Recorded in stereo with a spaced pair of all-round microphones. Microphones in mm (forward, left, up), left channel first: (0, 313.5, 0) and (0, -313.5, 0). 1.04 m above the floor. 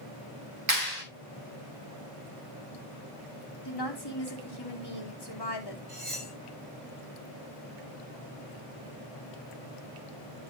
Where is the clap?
80° right, 3 m.